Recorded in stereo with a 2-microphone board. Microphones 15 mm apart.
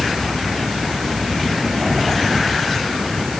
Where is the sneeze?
No sneeze in this recording.